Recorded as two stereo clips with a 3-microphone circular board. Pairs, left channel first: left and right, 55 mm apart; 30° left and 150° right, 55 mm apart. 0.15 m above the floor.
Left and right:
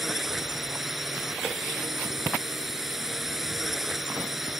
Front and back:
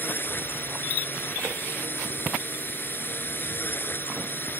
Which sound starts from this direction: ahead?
A drone, at 0.0 s.